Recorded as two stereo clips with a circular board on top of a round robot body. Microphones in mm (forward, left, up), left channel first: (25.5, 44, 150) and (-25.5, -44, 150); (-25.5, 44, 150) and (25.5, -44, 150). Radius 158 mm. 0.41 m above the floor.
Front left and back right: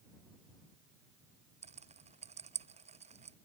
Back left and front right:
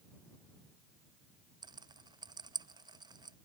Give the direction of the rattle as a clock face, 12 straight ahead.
4 o'clock.